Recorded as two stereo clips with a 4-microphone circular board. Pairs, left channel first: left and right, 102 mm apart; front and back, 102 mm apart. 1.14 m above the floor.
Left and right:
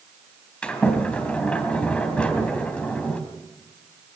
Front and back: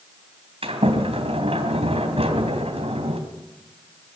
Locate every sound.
0.6 s a sliding door: 170° left, 3.5 m